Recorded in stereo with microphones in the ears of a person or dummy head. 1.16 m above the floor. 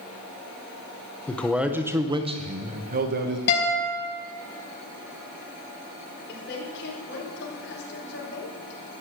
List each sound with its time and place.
1.3 s a man speaking: 15° left (ahead or behind), 0.9 m; by 3.4 s 50° right (ahead or behind), 1.4 m
3.5 s a guitar: 60° left (ahead or behind), 3.5 m
6.3 s a woman speaking: 60° left (ahead or behind), 4 m